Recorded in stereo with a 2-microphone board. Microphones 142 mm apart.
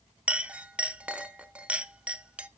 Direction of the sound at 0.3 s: 10° right (ahead or behind).